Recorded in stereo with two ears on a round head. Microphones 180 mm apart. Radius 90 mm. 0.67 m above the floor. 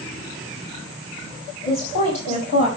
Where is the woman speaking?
30° left (ahead or behind), 4 m; by 2.7 s 50° left (ahead or behind), 4 m.